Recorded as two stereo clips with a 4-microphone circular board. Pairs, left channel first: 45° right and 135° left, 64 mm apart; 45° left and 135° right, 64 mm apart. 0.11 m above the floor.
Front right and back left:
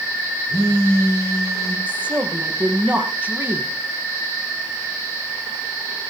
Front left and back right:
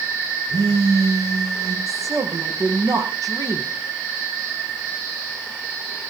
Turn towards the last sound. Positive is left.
turn(degrees=-160)